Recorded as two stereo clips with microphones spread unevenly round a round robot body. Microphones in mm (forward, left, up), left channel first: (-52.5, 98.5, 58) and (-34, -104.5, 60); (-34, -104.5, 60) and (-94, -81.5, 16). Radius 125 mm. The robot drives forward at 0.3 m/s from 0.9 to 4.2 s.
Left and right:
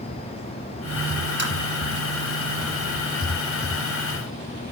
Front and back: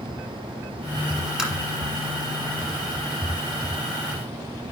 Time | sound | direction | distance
1.4 | tapping | 120° right | 4 m